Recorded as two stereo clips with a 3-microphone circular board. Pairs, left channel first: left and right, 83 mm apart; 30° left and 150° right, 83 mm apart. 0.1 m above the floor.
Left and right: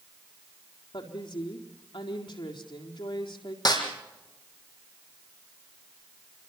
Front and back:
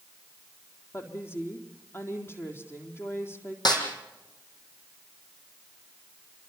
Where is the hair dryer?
No hair dryer in this recording.